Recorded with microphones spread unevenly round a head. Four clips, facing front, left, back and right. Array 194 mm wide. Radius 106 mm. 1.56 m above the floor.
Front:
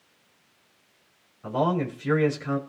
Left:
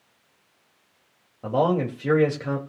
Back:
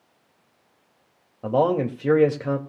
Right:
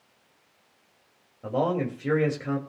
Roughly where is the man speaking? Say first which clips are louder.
Left 4 dB, back 5 dB; behind.